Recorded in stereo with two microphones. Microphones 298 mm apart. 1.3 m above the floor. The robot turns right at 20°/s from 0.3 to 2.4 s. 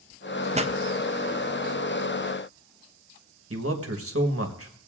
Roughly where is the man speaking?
Right.